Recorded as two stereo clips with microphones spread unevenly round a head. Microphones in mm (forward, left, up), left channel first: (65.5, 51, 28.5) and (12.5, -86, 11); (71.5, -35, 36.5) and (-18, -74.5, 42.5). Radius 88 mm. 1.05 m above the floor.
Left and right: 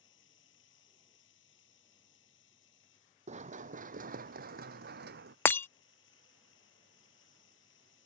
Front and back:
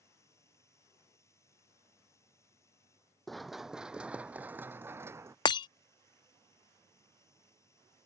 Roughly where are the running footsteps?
Ahead right.